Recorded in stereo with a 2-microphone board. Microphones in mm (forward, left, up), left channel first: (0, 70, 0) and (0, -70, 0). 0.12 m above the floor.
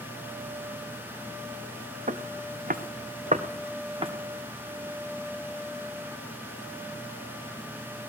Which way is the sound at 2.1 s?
65° right (ahead or behind).